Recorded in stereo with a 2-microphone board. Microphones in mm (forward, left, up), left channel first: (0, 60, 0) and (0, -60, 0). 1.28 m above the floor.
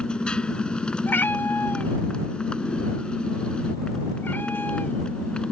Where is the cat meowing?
15° left (ahead or behind).